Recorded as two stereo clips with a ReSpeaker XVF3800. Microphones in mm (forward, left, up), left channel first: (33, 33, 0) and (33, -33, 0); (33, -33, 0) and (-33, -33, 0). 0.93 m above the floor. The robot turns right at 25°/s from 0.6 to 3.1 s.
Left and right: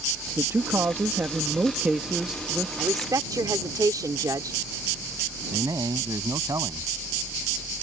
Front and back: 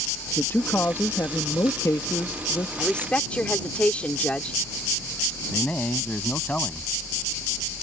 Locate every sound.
0.4 s a man speaking: 55° right; by 2.7 s straight ahead
2.8 s a woman speaking: 80° right; by 4.6 s 70° right
5.5 s a man speaking: 70° right